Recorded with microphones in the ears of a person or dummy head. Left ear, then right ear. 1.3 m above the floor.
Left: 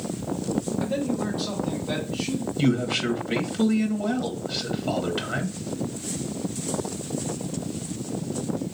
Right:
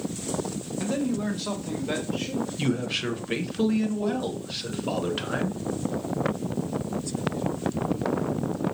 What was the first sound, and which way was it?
A man speaking, 80° right.